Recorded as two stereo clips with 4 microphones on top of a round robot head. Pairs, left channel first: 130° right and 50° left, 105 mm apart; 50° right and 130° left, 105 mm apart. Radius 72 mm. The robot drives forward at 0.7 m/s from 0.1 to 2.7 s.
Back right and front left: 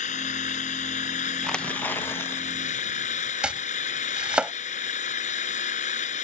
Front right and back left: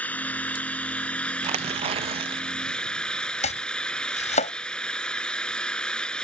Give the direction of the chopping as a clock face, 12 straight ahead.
1 o'clock.